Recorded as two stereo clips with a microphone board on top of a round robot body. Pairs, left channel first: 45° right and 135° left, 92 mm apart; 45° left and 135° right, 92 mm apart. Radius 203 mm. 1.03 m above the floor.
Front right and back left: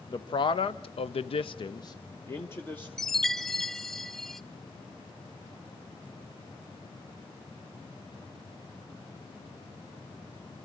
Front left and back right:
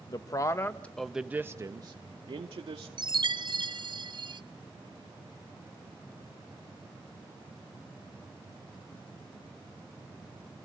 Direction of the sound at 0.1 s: 5° right.